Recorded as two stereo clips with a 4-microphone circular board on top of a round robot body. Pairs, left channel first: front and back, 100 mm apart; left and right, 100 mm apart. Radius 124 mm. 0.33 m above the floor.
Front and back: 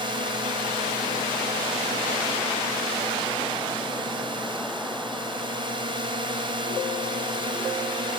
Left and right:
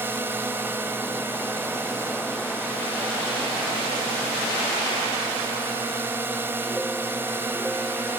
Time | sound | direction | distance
0.0 | a drone | 155° right | ?